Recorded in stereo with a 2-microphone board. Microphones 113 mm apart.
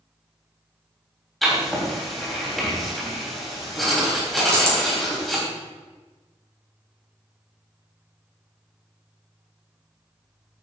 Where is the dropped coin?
25° right (ahead or behind), 3 m.